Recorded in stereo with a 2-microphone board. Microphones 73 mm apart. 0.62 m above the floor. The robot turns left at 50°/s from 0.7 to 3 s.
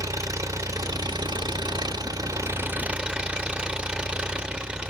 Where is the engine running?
50° right, 0.8 m; by 4.9 s 165° right, 0.8 m.